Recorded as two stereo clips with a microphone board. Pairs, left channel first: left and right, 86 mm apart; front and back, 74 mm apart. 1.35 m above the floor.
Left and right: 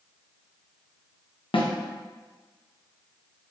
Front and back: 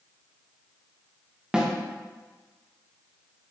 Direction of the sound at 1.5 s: 100° left.